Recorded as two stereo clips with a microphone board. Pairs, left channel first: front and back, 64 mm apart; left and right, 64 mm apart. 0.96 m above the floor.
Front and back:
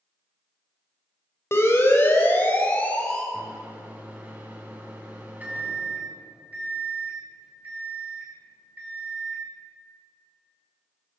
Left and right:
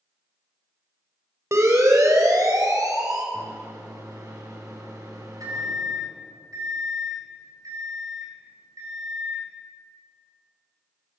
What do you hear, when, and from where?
1.5 s a siren: 50° right, 5 m; by 3.2 s 70° right, 5.5 m
3.3 s a microwave: 115° right, 8 m